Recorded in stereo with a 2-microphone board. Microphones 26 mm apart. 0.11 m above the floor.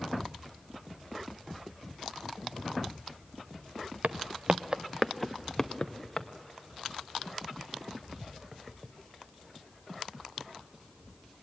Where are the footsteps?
85° right, 0.8 m; by 6.3 s 25° left (ahead or behind), 1.7 m.